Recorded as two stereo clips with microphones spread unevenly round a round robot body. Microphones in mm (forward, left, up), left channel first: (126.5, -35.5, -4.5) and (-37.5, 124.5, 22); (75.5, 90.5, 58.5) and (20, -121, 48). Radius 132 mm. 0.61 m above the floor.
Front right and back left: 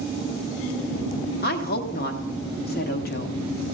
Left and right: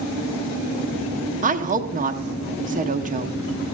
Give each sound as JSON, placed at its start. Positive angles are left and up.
{"t": 1.4, "sound": "a woman speaking", "azimuth_deg": -65, "distance_m": 0.9}